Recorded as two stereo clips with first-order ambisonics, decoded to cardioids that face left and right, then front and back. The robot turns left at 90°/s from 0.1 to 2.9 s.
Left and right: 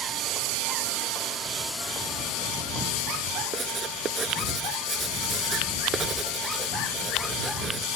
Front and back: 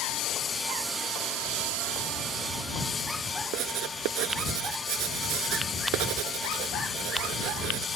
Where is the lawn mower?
35° right; by 8.0 s 65° left.